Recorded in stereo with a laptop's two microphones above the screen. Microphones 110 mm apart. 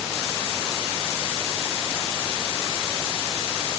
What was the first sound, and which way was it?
Only background noise.